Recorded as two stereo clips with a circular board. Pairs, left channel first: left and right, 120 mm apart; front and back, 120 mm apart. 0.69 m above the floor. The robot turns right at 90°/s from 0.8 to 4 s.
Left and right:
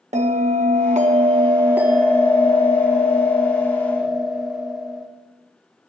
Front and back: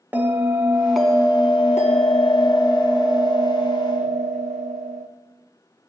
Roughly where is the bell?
Right.